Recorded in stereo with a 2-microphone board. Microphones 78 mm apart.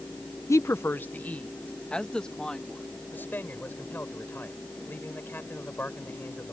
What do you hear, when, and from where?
0.5 s a woman speaking: 40° left (ahead or behind); by 2.8 s 5° left (ahead or behind)
3.1 s a man speaking: 25° left (ahead or behind)